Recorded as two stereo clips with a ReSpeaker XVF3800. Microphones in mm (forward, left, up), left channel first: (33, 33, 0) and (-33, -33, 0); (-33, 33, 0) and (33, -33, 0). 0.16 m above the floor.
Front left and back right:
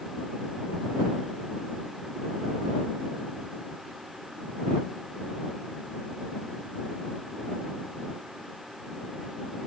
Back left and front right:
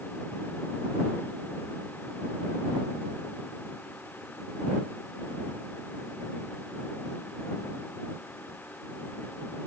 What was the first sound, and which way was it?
Only background noise.